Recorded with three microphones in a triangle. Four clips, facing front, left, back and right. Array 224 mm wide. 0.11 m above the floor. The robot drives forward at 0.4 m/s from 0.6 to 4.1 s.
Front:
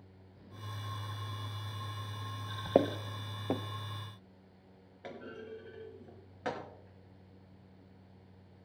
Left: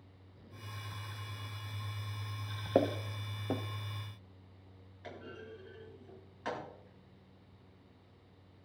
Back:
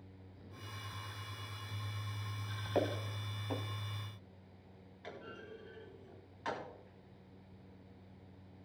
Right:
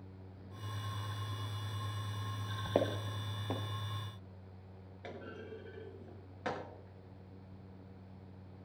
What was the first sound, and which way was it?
Footsteps, 10° left.